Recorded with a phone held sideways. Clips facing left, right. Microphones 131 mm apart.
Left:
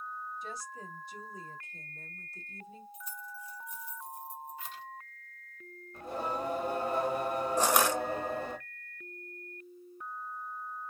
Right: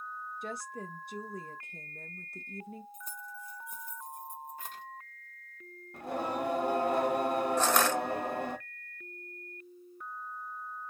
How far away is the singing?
About 1.1 m.